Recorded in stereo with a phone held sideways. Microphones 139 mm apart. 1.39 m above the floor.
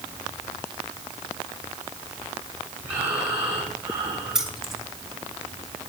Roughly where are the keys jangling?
Centre.